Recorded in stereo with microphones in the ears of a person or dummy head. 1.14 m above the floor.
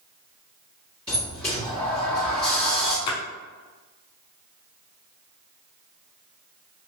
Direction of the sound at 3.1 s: 30° left (ahead or behind).